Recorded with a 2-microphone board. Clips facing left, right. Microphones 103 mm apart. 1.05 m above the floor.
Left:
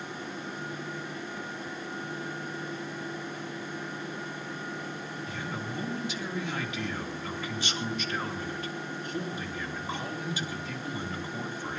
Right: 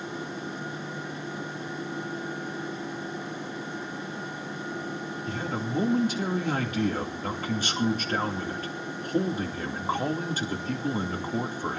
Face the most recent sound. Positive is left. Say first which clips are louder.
# right 7 dB
turn(degrees=-45)  # may be behind; listen again after turning